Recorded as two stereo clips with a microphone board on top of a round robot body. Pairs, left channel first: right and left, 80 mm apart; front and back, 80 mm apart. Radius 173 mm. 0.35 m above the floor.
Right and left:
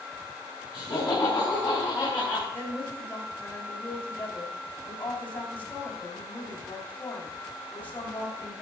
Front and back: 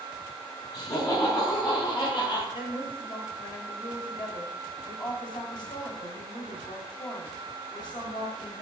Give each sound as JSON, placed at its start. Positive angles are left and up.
{"t": 0.7, "sound": "laughter", "azimuth_deg": -40, "distance_m": 4.5}
{"t": 2.5, "sound": "a woman speaking", "azimuth_deg": -25, "distance_m": 2.5}